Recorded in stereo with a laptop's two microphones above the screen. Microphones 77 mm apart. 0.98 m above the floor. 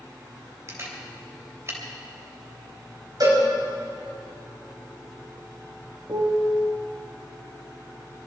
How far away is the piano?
About 1.5 m.